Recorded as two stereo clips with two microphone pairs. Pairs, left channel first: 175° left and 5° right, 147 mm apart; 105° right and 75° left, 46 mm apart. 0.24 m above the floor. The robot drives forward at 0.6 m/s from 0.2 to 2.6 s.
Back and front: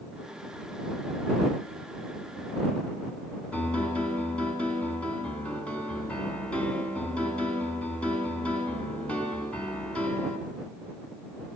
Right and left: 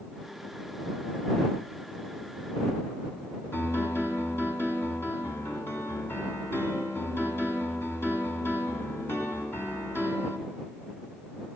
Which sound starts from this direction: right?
A piano, at 3.5 s.